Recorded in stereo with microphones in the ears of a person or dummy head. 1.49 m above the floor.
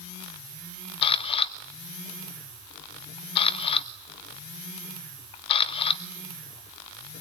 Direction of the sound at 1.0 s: 30° left (ahead or behind).